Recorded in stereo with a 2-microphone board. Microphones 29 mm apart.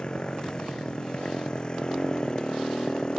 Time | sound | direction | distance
0.0 | a motorcycle | 30° left (ahead or behind) | ?